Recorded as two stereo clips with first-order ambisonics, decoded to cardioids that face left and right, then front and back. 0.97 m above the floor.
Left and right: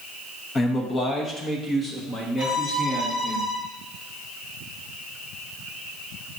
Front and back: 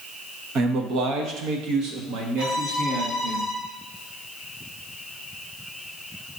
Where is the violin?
170° right, 2.5 m.